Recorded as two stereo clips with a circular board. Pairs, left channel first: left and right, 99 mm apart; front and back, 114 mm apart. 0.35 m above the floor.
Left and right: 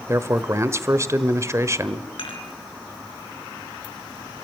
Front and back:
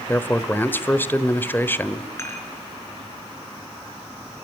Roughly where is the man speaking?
Ahead right.